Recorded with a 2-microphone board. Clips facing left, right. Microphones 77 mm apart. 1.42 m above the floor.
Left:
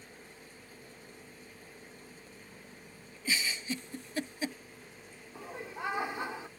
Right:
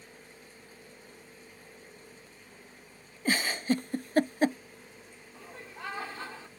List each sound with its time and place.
3.2 s a giggle: 60° right (ahead or behind)
5.3 s laughter: 20° left (ahead or behind)